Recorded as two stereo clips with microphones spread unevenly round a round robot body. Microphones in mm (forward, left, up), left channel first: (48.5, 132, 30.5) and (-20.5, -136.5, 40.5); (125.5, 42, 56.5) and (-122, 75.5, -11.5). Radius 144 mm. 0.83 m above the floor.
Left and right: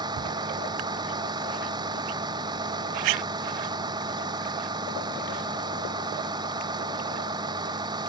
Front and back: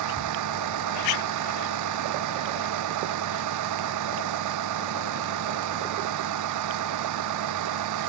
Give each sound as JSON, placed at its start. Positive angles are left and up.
{"t": 0.0, "sound": "a vehicle", "azimuth_deg": 180}